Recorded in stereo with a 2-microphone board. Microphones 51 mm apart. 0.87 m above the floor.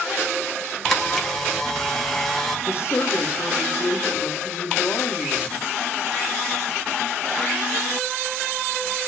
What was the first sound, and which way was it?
A camera shutter, 5° left (ahead or behind).